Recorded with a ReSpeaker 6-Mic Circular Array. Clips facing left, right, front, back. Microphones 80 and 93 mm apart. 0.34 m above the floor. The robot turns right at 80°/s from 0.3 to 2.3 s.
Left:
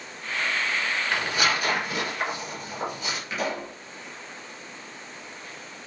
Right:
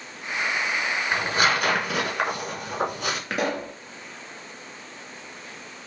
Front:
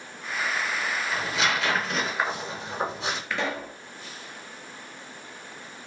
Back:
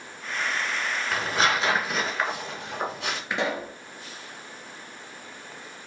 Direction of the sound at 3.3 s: 110° right.